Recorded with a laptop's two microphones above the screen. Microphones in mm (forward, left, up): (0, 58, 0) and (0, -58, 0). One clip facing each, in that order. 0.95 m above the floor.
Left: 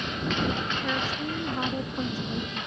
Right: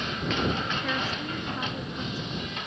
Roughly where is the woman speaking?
Centre.